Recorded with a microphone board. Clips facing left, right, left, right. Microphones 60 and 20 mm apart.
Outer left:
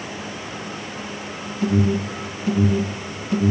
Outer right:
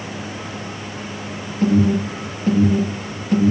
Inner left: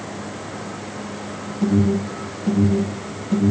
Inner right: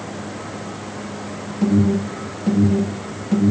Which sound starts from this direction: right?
An alarm, at 1.6 s.